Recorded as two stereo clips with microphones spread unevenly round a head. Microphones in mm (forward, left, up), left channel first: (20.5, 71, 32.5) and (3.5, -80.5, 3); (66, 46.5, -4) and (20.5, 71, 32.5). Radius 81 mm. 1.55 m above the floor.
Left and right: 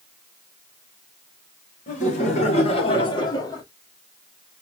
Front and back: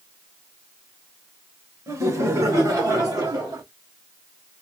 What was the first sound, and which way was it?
Laughter, 130° left.